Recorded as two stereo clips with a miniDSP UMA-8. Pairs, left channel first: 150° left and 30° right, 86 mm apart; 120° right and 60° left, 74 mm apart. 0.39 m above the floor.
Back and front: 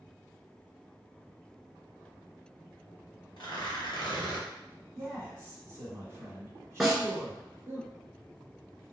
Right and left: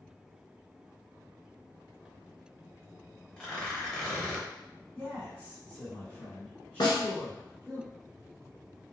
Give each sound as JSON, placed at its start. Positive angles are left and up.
{"t": 3.4, "sound": "tearing paper", "azimuth_deg": 160, "distance_m": 0.9}
{"t": 5.0, "sound": "a man speaking", "azimuth_deg": -70, "distance_m": 1.6}
{"t": 6.8, "sound": "a snare drum", "azimuth_deg": -115, "distance_m": 0.9}